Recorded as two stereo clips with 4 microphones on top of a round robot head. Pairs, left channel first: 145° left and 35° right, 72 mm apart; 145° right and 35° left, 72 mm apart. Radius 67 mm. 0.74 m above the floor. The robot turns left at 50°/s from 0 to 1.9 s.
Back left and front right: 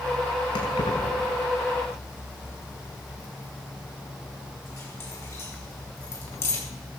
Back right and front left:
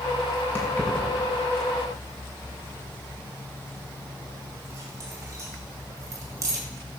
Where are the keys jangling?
155° left, 5.5 m; by 6.6 s 90° left, 5.5 m.